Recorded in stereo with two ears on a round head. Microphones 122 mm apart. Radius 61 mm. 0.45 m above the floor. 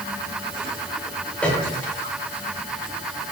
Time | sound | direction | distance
1.4 | a piano | 10° left (ahead or behind) | 7.5 m